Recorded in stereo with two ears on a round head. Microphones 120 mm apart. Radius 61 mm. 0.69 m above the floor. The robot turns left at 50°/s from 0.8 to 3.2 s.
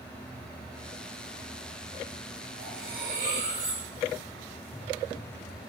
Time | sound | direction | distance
2.6 | cutlery clinking | 80° right | 8 m